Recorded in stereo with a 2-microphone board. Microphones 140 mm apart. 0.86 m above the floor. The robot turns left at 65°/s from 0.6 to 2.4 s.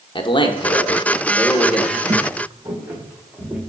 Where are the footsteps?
55° right (ahead or behind), 1.5 m; by 3.6 s centre (ahead or behind), 2.5 m.